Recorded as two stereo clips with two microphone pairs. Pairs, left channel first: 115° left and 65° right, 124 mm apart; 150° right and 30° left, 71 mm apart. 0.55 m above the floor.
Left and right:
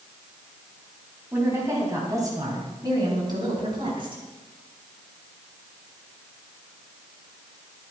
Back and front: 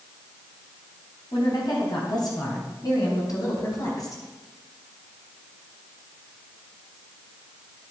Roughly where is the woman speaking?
Behind right.